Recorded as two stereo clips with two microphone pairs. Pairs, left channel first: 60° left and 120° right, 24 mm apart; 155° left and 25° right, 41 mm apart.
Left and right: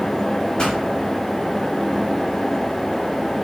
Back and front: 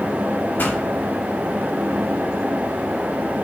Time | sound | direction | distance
0.6 | a pop | 125° left | 4.5 m